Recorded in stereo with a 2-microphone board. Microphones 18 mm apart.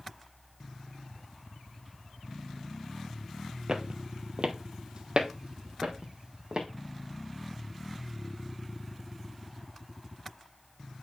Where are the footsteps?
45° right (ahead or behind), 0.9 m; by 6.7 s 60° right (ahead or behind), 1.9 m.